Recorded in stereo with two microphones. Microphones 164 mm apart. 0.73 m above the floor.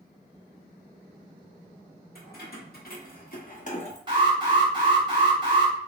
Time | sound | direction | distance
2.1 | keys jangling | 70° left (ahead or behind) | 1.4 m
4.1 | an alarm | 25° right (ahead or behind) | 1.4 m